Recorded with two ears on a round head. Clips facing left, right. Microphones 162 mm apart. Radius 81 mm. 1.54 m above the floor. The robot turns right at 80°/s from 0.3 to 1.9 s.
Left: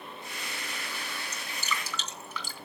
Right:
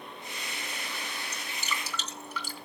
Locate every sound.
1.3 s dripping: 65° left (ahead or behind), 3 m; by 2.5 s 70° left (ahead or behind), 3 m